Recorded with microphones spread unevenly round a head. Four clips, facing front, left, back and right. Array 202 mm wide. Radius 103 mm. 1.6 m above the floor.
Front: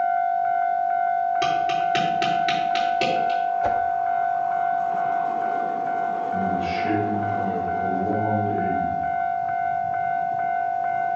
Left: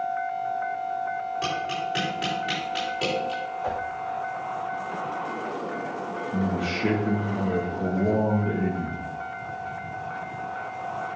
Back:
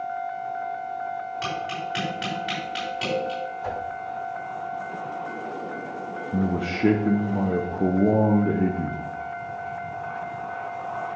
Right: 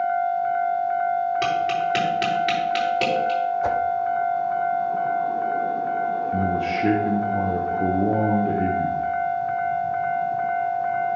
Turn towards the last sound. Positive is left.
turn(degrees=-165)